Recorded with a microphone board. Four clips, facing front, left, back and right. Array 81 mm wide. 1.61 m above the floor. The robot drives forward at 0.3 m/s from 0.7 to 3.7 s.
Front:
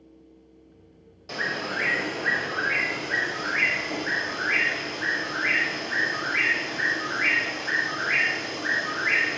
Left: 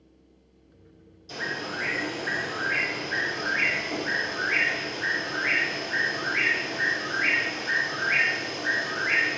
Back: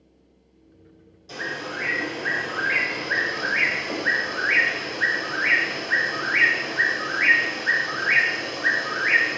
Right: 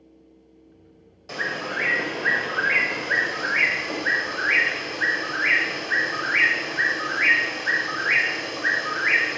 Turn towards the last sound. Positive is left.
turn(degrees=-135)